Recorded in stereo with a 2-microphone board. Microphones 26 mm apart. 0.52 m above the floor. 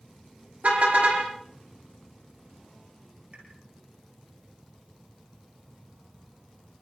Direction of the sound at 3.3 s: 50° right (ahead or behind).